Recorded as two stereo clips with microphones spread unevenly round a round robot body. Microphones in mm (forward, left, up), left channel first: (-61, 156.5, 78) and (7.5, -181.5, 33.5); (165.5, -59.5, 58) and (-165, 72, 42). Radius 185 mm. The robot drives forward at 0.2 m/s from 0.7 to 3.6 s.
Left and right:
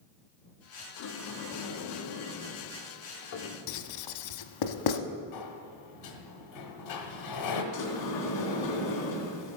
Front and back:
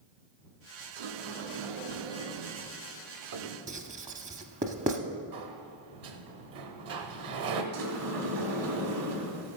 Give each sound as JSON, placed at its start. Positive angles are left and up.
{"t": 1.0, "sound": "a sliding door", "azimuth_deg": 140, "distance_m": 0.8}
{"t": 3.7, "sound": "writing", "azimuth_deg": 85, "distance_m": 0.6}
{"t": 5.3, "sound": "a sliding door", "azimuth_deg": 125, "distance_m": 1.1}
{"t": 7.7, "sound": "a sliding door", "azimuth_deg": 125, "distance_m": 1.9}